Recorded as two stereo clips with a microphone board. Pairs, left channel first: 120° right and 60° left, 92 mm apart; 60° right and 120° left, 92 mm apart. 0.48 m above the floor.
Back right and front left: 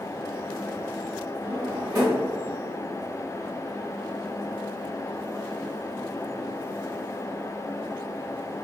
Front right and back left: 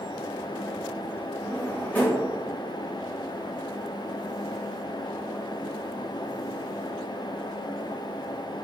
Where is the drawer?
10° left, 1.2 m.